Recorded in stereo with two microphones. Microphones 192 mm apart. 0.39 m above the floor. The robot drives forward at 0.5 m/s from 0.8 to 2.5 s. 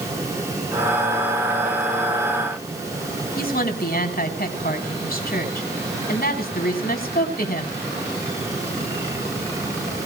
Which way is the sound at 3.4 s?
50° left (ahead or behind).